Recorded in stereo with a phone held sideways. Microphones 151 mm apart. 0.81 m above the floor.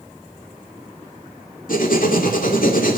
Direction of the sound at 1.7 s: 65° left (ahead or behind).